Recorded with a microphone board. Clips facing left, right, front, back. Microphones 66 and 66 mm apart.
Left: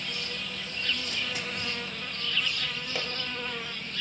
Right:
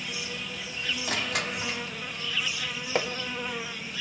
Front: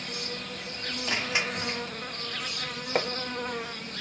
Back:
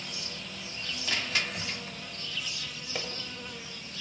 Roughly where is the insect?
Ahead.